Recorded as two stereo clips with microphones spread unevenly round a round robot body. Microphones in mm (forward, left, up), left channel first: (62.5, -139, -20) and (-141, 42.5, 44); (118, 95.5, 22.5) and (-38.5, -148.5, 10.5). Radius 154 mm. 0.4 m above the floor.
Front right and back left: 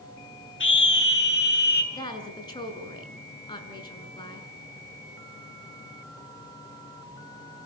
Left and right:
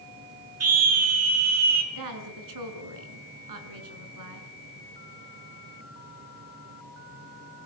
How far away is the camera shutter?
No camera shutter in this recording.